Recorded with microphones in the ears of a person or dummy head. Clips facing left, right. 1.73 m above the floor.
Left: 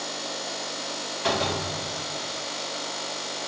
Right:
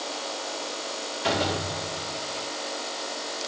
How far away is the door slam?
About 4 m.